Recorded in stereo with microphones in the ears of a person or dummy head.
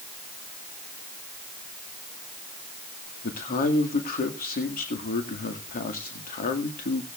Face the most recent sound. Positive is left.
turn(degrees=45)  # may be behind; listen again after turning